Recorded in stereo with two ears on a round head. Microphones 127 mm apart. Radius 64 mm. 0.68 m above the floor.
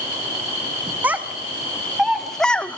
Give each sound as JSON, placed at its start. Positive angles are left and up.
{"t": 1.0, "sound": "a child speaking", "side_deg": -10, "distance_m": 1.6}